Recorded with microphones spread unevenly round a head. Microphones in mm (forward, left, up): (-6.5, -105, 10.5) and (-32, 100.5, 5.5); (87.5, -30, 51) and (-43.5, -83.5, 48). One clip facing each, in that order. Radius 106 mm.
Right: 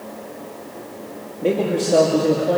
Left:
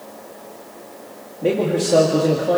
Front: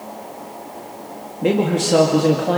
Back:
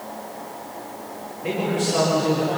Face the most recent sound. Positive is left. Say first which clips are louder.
# left 1 dB, front 6 dB
turn(degrees=10)